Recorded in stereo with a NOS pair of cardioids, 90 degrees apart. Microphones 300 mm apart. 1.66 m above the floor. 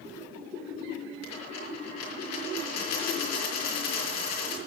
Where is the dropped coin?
65° left, 5.5 m.